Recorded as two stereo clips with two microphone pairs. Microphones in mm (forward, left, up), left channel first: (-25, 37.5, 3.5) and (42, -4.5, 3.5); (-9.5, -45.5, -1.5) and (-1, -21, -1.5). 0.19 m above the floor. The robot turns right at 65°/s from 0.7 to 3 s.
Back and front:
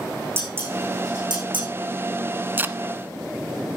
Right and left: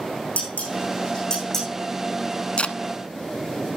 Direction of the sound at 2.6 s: 90° right.